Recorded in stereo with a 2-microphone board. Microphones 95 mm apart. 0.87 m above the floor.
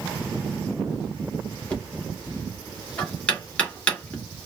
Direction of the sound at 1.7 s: 15° left (ahead or behind).